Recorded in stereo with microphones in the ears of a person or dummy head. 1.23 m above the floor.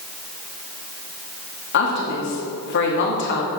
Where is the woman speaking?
55° left (ahead or behind), 1.8 m.